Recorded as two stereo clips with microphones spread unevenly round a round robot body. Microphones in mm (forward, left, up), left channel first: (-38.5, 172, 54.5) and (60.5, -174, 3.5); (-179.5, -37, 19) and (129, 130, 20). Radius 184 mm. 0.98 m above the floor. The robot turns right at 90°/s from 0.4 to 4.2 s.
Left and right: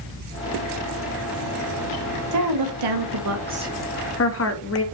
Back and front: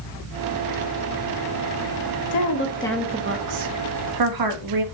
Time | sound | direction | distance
2.3 | a woman speaking | 120° right | 1.4 m